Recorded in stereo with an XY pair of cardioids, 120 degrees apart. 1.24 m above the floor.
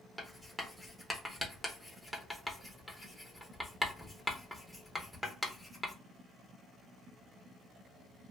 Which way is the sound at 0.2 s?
5° left.